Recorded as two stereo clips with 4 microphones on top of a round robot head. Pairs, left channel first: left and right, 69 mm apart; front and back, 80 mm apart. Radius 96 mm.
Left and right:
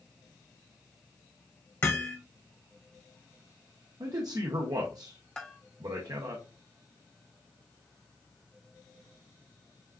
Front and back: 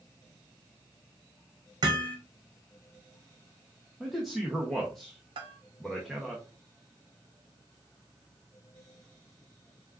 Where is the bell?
170° left, 0.7 m.